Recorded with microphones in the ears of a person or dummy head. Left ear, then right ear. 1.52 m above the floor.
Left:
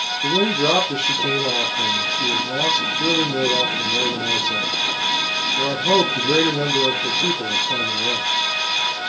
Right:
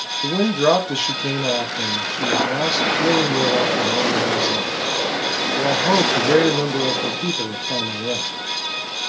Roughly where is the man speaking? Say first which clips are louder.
Right 1 dB; right.